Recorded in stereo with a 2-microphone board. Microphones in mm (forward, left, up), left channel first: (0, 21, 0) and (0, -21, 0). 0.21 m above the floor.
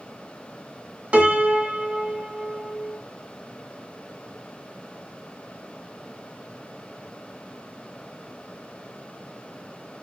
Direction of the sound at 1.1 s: 30° right (ahead or behind).